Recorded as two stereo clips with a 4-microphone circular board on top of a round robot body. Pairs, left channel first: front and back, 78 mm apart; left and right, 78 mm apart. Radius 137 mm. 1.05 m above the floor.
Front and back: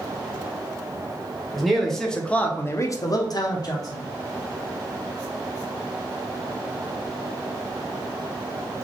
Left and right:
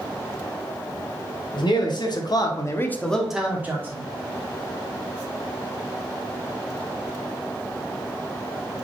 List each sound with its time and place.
1.5 s a man speaking: 90° left, 1.7 m; by 4.0 s 35° right, 1.4 m